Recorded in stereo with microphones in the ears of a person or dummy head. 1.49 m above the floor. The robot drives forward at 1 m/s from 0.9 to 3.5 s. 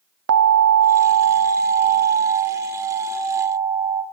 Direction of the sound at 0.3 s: 85° right.